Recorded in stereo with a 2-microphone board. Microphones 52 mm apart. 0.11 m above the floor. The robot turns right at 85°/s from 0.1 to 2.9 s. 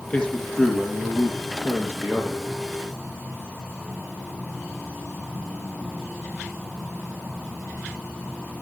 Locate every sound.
0.1 s a man speaking: 145° left, 4 m; by 2.4 s 15° right, 4 m